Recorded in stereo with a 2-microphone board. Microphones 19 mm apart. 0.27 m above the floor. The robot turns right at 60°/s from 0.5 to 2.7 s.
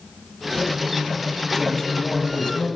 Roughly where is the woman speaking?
Ahead left.